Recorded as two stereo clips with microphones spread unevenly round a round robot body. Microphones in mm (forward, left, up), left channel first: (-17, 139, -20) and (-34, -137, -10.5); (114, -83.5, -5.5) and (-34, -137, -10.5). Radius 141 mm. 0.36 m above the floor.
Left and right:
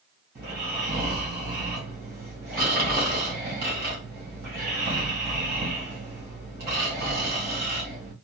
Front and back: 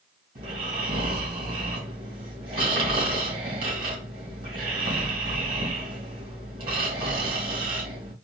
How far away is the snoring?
About 2.5 m.